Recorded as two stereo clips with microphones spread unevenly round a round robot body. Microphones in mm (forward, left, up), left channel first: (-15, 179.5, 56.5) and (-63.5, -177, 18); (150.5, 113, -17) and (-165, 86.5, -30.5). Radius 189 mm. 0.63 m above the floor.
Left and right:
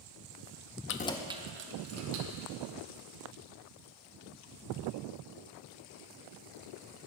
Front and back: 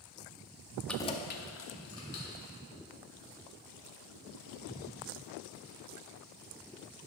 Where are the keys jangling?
95° left, 0.5 m; by 2.5 s 55° right, 1.6 m.